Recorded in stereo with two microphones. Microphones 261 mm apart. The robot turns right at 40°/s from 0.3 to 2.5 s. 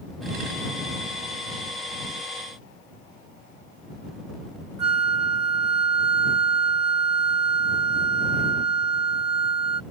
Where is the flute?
75° right (ahead or behind).